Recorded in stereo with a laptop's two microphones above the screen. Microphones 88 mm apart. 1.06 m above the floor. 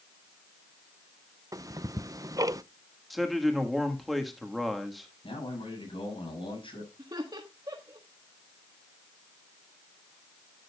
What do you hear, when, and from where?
1.5 s ticking: 40° right (ahead or behind), 0.5 m
3.1 s a man speaking: centre (ahead or behind), 1.5 m
5.2 s a man speaking: 85° left, 8.5 m
7.0 s laughter: 50° right (ahead or behind), 1.4 m